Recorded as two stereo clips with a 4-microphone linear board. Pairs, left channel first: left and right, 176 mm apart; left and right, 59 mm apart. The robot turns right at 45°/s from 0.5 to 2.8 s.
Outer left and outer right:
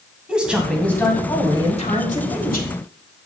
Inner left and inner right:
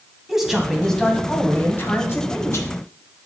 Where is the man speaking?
5° right, 1.6 m; by 2.7 s 90° left, 1.6 m.